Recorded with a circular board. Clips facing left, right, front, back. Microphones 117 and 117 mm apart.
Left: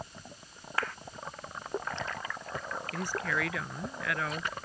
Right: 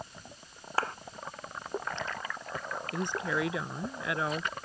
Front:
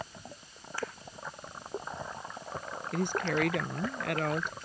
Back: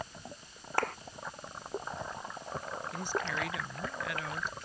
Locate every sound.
0.8 s a clap: 150° right
2.9 s a woman speaking: 25° right